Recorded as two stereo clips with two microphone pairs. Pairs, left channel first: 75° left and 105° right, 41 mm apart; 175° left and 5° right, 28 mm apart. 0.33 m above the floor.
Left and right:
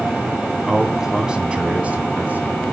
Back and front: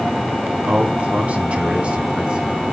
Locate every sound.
0.7 s a man speaking: 20° right, 2.5 m; by 2.6 s 65° right, 3 m